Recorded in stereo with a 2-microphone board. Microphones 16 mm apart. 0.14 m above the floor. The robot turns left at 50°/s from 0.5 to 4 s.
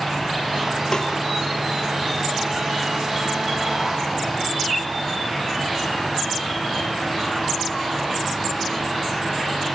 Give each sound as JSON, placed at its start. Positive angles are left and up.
{"t": 0.9, "sound": "a snare drum", "side_deg": 35, "distance_m": 2.5}